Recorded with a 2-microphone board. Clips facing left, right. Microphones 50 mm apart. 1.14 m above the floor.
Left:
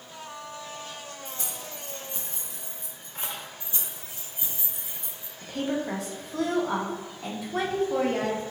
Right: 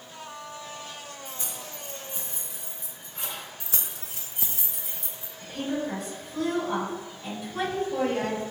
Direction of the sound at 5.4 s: 85° left.